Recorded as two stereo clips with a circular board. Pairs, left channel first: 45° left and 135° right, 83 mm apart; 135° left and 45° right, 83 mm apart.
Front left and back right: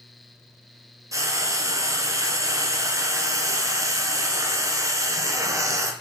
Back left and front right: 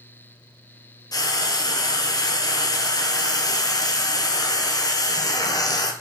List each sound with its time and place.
1.1 s frying: 175° left, 0.6 m